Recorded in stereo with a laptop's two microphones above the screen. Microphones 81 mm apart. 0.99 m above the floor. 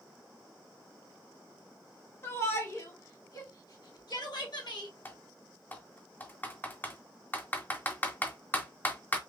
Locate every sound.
2.2 s a shout: 30° left (ahead or behind), 1.8 m; by 4.9 s 70° left (ahead or behind), 1.7 m
5.0 s typing on a keyboard: 25° left (ahead or behind), 0.7 m